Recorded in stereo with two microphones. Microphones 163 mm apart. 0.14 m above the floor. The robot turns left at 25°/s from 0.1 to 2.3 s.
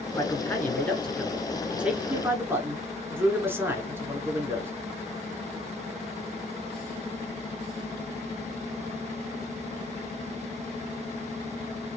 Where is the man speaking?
30° left, 1.2 m; by 4.7 s 20° right, 1.2 m.